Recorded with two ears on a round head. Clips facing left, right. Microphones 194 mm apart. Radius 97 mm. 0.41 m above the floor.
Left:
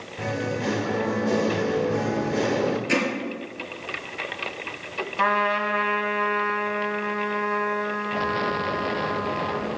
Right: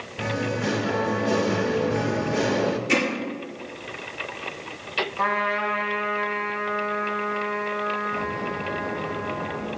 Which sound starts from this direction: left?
A trumpet, at 5.2 s.